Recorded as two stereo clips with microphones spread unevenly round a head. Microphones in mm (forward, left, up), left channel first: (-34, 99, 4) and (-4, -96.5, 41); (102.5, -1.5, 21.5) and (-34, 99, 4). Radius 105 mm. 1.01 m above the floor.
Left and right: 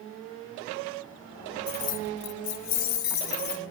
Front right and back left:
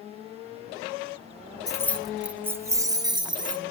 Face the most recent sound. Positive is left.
turn(degrees=80)